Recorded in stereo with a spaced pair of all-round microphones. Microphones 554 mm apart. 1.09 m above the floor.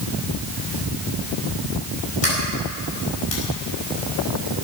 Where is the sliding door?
80° left, 5 m.